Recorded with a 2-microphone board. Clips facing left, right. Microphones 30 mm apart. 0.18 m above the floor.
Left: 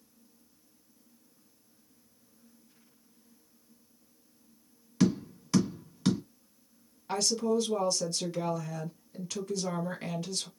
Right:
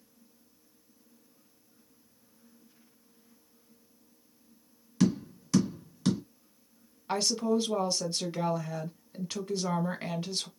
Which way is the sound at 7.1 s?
25° right (ahead or behind).